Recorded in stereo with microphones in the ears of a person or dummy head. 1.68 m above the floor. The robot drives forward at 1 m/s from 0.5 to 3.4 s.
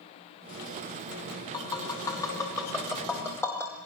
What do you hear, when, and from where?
1.5 s tapping: 20° left (ahead or behind), 3 m; by 3.7 s 15° left (ahead or behind), 5 m